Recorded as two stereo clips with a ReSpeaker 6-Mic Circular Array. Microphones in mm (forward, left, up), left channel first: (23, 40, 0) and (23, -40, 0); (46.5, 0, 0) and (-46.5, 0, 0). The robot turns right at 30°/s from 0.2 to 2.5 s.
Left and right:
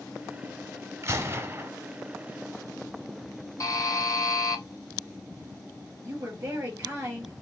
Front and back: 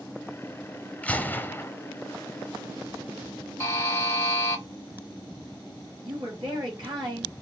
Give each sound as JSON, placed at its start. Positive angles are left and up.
{"t": 1.0, "sound": "a gunshot", "azimuth_deg": -65, "distance_m": 0.8}
{"t": 3.6, "sound": "a buzzer", "azimuth_deg": 55, "distance_m": 1.1}
{"t": 6.0, "sound": "a woman speaking", "azimuth_deg": -150, "distance_m": 4.0}